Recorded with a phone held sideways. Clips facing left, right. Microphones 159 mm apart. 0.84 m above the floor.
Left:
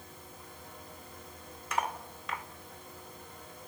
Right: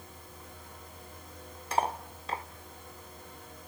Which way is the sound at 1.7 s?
30° right (ahead or behind).